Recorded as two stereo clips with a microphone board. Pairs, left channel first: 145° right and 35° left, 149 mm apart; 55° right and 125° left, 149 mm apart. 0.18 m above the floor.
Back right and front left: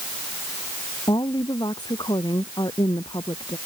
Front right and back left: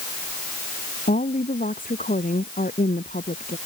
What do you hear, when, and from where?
1.1 s a woman speaking: 85° right